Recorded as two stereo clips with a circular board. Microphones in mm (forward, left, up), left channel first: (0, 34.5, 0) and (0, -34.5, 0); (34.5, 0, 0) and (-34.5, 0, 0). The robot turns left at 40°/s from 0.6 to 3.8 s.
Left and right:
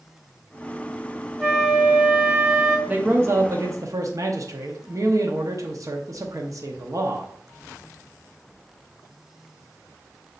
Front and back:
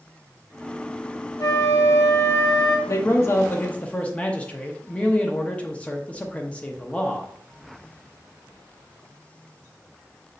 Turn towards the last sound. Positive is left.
turn(degrees=-70)